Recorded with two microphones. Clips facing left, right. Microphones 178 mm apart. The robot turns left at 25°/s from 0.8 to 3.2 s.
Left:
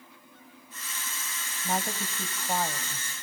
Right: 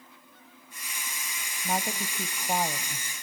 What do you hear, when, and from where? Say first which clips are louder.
1.6 s a woman speaking: even; 5° right (ahead or behind), 1.0 m; by 3.1 s 15° right (ahead or behind), 1.0 m